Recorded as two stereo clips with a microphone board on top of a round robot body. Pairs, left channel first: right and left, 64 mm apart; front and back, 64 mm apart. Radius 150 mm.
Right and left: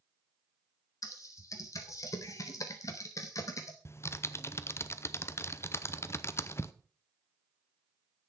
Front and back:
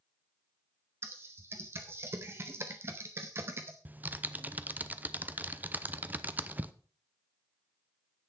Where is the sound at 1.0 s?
125° right, 0.7 m.